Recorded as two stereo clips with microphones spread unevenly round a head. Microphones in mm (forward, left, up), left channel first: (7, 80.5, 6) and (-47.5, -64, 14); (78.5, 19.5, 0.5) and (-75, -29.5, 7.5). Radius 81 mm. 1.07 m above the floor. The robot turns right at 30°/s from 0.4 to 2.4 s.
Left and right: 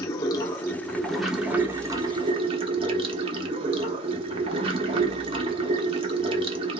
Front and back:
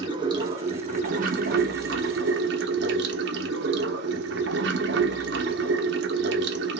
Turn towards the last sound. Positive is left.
turn(degrees=-165)